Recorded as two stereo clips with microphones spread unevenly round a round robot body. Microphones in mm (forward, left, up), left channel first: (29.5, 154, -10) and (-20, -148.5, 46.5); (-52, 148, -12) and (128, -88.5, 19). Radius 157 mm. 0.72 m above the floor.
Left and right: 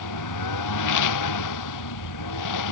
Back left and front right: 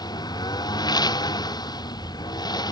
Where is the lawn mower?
50° left.